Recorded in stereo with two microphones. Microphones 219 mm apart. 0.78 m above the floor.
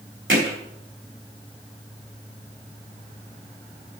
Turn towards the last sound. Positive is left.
turn(degrees=-65)  # may be behind; listen again after turning